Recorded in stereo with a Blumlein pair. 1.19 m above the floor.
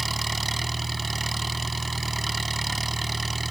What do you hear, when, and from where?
0.0 s an engine running: 10° right